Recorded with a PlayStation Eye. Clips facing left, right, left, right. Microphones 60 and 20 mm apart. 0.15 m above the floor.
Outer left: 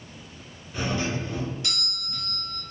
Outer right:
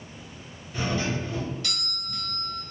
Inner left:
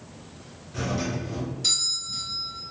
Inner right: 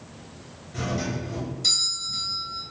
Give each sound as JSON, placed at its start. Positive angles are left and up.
{"t": 0.7, "sound": "a doorbell", "side_deg": 20, "distance_m": 2.0}